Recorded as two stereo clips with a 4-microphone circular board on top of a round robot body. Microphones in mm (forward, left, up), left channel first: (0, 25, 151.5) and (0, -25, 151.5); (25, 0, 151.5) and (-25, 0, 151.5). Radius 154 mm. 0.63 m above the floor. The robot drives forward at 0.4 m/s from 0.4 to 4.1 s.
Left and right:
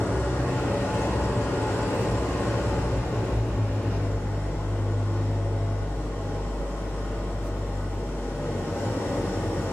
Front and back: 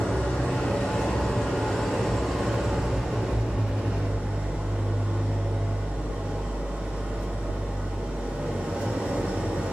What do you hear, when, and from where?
0.0 s an engine running: 60° left, 1.7 m; by 9.8 s 115° left, 1.6 m